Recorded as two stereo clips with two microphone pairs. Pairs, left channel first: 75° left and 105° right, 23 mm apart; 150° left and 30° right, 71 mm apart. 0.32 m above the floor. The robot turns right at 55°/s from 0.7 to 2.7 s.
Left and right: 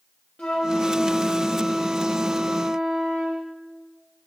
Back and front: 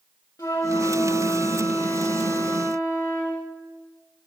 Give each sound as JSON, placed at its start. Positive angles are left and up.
{"t": 0.4, "sound": "a flute", "azimuth_deg": 105, "distance_m": 5.0}